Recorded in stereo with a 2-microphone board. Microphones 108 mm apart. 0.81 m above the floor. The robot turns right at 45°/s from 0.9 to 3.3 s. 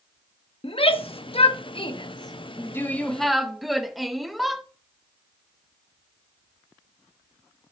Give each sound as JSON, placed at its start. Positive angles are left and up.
{"t": 0.6, "sound": "a shout", "side_deg": 60, "distance_m": 0.9}